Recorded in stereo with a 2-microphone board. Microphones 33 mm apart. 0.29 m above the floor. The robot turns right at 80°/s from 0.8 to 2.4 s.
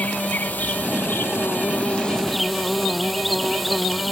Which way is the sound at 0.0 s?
50° left.